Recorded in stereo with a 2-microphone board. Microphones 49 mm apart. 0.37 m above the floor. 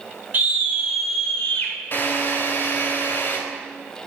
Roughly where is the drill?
Left.